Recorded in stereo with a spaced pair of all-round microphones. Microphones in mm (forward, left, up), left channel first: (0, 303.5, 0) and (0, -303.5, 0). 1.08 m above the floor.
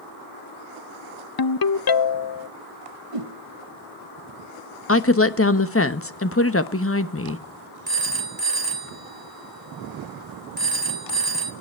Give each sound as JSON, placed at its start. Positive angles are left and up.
{"t": 1.4, "sound": "a ringtone", "side_deg": 40, "distance_m": 0.5}
{"t": 3.1, "sound": "a whoosh", "side_deg": -60, "distance_m": 1.3}
{"t": 4.9, "sound": "a woman speaking", "side_deg": 20, "distance_m": 1.1}
{"t": 7.9, "sound": "a phone ringing", "side_deg": -35, "distance_m": 2.5}